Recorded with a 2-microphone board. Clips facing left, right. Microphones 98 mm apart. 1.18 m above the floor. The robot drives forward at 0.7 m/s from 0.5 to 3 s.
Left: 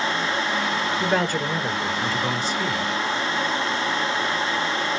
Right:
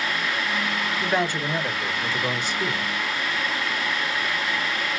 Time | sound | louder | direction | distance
1.0 | a man speaking | left 1 dB | 50° left (ahead or behind) | 1.7 m